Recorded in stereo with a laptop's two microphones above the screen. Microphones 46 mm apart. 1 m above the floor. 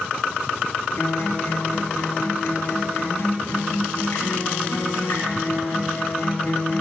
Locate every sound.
1.0 s a guitar: 75° left (ahead or behind), 3 m